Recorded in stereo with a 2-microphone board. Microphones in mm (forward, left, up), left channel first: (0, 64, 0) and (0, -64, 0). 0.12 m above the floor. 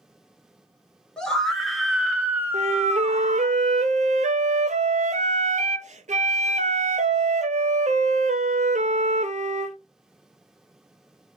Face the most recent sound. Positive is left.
turn(degrees=-70)  # may be behind; listen again after turning